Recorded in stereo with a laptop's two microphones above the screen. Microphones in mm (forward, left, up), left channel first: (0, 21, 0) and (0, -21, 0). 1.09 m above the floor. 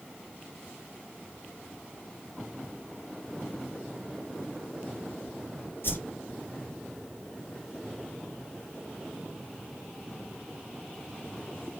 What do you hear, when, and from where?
5.8 s a whoosh: 55° left (ahead or behind), 6 m